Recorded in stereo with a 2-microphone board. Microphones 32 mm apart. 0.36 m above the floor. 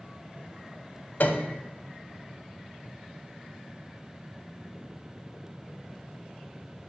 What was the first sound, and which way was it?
A piano, 60° left (ahead or behind).